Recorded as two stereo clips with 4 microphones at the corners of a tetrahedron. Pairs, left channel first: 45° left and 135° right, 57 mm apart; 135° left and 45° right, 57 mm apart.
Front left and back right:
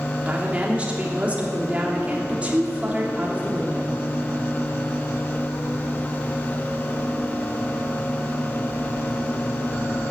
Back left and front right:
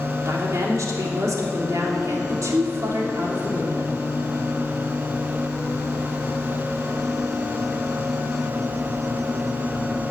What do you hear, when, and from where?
0.2 s a woman speaking: 65° right, 3 m